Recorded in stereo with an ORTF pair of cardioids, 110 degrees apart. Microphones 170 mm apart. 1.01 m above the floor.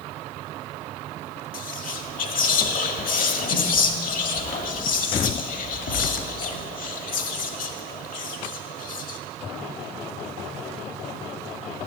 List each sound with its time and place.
1.5 s whispering: 55° left, 1.6 m